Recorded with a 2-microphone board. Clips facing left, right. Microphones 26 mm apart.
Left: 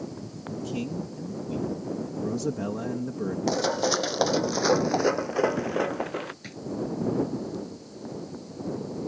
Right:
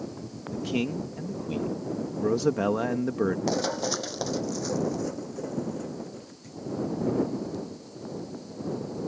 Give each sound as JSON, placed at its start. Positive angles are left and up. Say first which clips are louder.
{"t": 0.5, "sound": "a man speaking", "louder": "right 3 dB", "side_deg": -40}
{"t": 3.5, "sound": "running footsteps", "louder": "left 3 dB", "side_deg": 5}
{"t": 6.4, "sound": "a drawer", "louder": "left 2 dB", "side_deg": 60}